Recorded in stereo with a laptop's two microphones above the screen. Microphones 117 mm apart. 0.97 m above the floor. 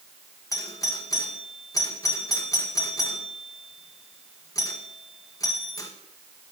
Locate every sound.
0.5 s a doorbell: 30° left (ahead or behind), 1.7 m